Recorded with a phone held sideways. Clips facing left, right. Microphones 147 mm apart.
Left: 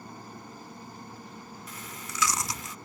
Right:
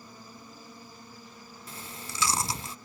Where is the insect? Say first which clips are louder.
Left 5 dB; 65° left (ahead or behind).